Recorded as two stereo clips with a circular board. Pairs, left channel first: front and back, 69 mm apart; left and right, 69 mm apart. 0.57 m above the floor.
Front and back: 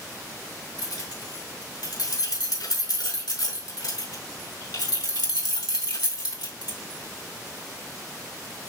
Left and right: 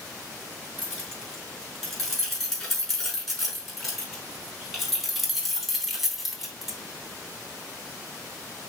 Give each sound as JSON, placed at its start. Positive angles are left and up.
{"t": 0.8, "sound": "keys jangling", "azimuth_deg": 5, "distance_m": 6.0}